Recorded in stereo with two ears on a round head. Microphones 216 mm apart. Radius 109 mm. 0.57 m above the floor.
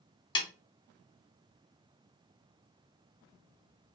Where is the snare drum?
20° left (ahead or behind), 0.8 m.